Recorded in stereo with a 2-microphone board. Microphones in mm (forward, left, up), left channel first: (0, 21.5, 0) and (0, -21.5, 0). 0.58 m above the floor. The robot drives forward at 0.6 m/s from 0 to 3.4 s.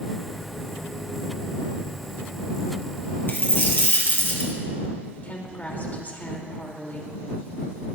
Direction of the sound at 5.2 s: 40° left (ahead or behind).